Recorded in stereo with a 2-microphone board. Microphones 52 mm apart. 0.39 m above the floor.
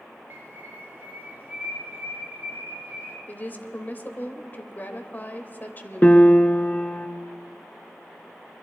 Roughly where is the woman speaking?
Left.